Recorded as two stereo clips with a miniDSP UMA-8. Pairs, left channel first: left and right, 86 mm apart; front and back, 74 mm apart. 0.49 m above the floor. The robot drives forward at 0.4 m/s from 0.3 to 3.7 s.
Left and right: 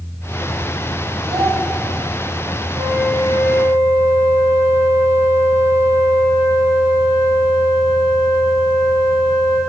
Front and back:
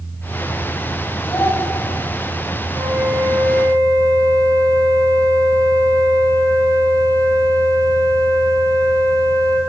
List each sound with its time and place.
1.2 s a child speaking: 60° right, 2.5 m; by 1.6 s 65° right, 2.5 m
2.7 s a flute: 145° right, 2.5 m; by 9.6 s 150° right, 2.5 m